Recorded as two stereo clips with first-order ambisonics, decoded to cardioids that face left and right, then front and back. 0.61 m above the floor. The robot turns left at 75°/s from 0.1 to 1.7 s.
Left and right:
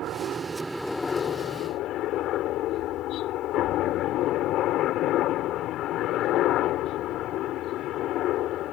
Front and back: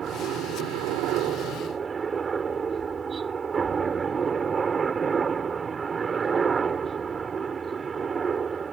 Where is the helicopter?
125° right; by 8.7 s 115° left.